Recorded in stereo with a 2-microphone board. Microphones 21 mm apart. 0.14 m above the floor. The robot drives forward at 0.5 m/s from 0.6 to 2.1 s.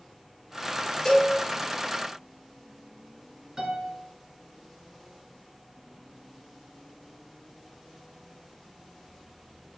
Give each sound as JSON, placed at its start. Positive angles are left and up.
{"t": 1.1, "sound": "a cowbell", "side_deg": 35, "distance_m": 2.0}
{"t": 3.6, "sound": "a piano", "side_deg": -25, "distance_m": 1.2}